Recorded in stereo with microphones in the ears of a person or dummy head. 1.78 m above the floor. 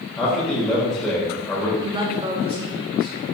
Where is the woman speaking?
25° right (ahead or behind), 1.1 m.